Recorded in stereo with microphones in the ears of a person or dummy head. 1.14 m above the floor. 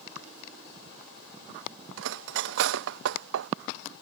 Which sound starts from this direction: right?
Cutlery clinking, at 2.0 s.